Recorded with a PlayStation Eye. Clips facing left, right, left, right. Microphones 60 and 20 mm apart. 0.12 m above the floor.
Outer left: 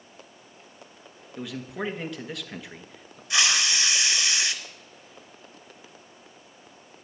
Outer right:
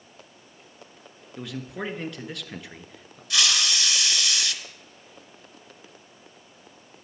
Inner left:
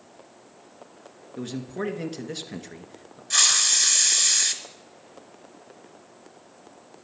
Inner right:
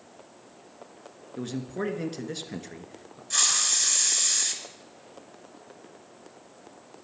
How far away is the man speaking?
About 1.2 m.